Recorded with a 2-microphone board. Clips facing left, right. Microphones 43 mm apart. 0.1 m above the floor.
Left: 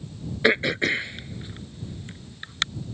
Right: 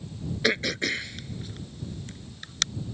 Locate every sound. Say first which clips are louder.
0.4 s throat clearing: left 5 dB; 20° left (ahead or behind)